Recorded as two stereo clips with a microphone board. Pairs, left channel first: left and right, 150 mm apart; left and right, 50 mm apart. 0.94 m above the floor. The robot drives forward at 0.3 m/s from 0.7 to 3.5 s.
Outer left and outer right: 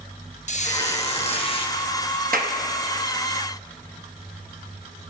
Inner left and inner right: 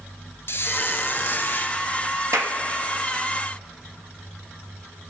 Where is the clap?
75° right (ahead or behind), 0.9 m; by 2.6 s 70° right (ahead or behind), 0.9 m.